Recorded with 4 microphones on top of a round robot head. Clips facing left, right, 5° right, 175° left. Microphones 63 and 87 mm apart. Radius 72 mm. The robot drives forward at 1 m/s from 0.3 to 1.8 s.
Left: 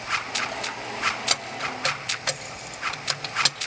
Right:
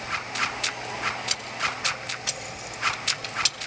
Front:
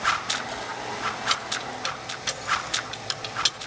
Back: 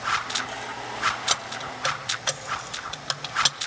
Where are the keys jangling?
120° left, 2 m; by 3.6 s 130° left, 2.5 m.